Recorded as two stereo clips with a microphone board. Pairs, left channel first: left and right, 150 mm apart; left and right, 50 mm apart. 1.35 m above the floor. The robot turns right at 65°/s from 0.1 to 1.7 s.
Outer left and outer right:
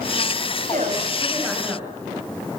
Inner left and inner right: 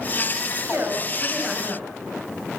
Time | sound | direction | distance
0.5 | a woman speaking | 65° right | 7.5 m